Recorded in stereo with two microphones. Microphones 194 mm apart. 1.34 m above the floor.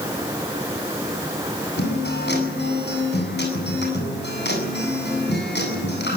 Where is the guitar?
60° left (ahead or behind), 8 m.